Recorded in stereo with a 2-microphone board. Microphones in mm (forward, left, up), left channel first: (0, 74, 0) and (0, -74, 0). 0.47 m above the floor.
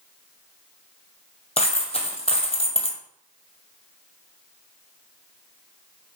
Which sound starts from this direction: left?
A dropped coin, at 1.6 s.